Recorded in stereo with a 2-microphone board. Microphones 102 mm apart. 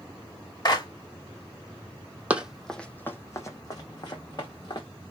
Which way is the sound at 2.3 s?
15° right (ahead or behind).